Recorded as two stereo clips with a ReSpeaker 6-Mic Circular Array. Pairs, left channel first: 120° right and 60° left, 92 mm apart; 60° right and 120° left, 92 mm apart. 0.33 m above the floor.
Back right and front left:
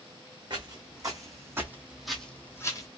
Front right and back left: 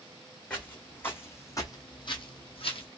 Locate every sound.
0.5 s footsteps: 20° left, 1.4 m; by 2.9 s 70° right, 0.8 m